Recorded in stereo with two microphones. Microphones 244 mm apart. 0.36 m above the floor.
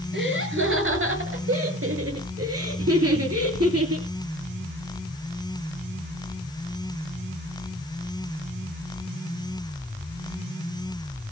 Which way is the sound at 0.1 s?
50° right (ahead or behind).